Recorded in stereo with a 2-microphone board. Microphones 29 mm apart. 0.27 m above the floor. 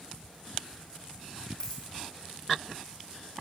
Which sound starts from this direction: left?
A dropped coin, at 1.6 s.